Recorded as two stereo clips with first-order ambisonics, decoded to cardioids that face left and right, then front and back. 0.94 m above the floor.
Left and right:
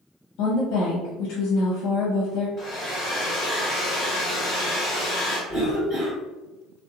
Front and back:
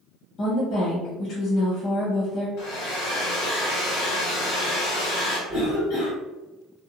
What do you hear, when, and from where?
0.4 s a woman speaking: 60° left, 0.7 m
2.6 s a hair dryer: 5° left, 1.5 m
5.5 s a cough: 25° right, 1.8 m